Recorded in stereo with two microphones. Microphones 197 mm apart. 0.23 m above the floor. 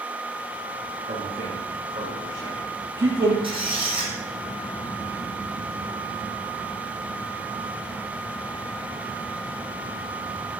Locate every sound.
1.1 s a man speaking: 25° right (ahead or behind), 8.5 m; by 3.3 s 10° right (ahead or behind), 10.5 m
3.4 s a squeak: 25° right (ahead or behind), 5 m